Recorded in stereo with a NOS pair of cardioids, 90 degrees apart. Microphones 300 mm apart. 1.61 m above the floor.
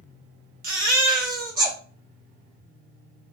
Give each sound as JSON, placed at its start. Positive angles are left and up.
{"t": 0.6, "sound": "a baby crying", "azimuth_deg": -30, "distance_m": 1.4}